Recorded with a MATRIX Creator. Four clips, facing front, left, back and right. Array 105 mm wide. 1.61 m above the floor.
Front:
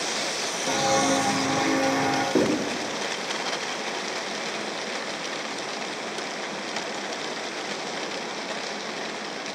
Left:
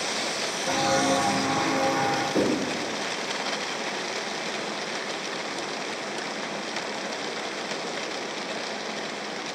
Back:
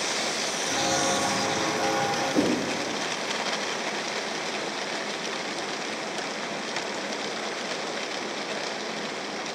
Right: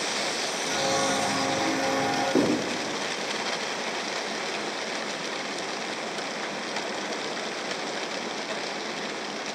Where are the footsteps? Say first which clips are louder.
Left 4 dB, front 5 dB; 20° left, 2.5 m; by 2.2 s 10° left, 1.9 m.